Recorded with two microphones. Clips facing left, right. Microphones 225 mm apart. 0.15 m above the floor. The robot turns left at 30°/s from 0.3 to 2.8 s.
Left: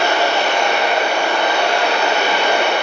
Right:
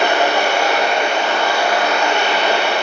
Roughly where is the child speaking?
I don't hear a child speaking.